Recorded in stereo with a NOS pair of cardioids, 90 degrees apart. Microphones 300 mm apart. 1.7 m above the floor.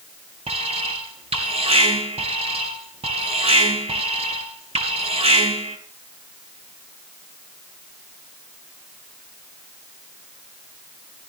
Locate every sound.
0.5 s an alarm: 20° right, 5 m